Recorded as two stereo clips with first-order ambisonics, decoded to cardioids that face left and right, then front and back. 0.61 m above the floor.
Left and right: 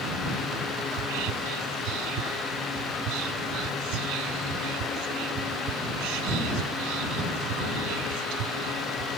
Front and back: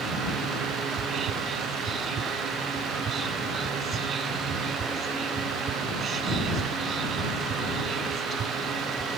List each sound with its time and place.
0.9 s whispering: 115° right